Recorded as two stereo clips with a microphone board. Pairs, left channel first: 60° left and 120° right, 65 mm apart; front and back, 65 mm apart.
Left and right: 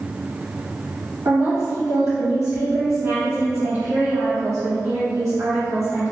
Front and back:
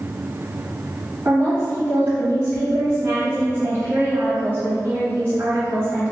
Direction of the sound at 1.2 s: 135° right.